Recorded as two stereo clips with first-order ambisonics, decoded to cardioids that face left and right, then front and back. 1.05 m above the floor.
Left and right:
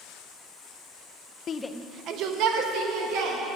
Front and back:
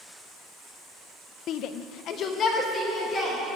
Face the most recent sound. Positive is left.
turn(degrees=-70)